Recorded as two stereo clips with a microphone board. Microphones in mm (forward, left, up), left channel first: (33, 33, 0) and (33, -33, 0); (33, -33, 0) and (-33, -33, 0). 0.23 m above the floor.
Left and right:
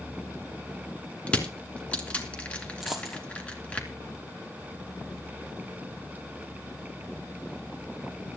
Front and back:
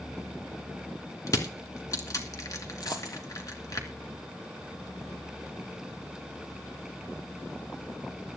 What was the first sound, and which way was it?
Crushing, 20° left.